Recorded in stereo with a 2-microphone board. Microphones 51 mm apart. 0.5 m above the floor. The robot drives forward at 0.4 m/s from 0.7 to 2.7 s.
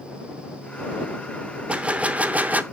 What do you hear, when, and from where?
1.7 s a gunshot: 25° right (ahead or behind), 0.9 m; by 2.6 s 35° right (ahead or behind), 0.6 m